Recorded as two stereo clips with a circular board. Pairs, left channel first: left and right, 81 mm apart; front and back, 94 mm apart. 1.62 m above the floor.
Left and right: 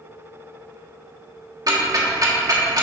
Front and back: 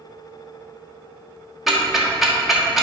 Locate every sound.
1.7 s ticking: 95° right, 1.4 m